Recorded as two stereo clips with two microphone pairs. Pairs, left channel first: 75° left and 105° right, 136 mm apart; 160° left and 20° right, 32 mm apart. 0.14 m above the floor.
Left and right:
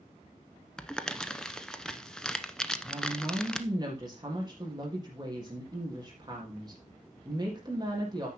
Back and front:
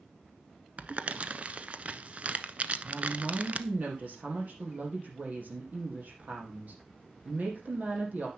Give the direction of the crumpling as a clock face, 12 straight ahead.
12 o'clock.